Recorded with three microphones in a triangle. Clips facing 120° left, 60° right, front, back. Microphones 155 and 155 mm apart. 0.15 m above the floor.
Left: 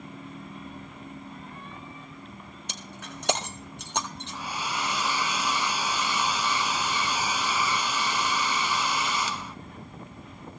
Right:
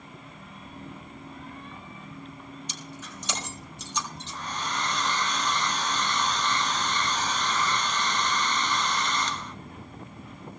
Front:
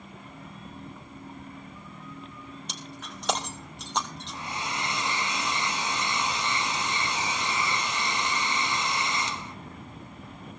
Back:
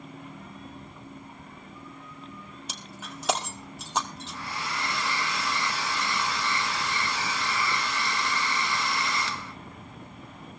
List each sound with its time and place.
2.7 s breaking glass: 95° left, 1.9 m
4.3 s a hair dryer: 45° left, 0.7 m